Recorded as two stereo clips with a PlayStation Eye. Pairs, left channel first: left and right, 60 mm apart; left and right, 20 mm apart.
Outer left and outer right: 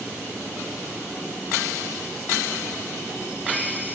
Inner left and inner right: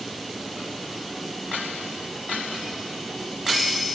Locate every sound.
Only background noise.